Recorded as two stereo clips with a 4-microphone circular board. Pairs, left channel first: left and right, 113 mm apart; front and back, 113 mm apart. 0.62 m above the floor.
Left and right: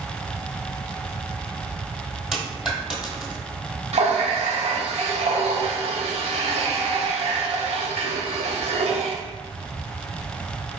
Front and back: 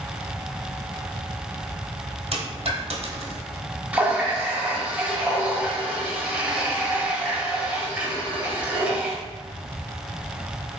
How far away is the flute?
No flute in this recording.